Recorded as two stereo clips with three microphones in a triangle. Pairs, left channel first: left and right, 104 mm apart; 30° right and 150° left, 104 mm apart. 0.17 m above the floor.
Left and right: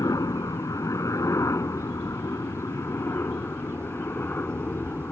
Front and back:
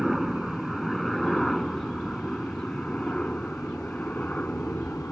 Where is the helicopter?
60° left; by 5.1 s 35° left.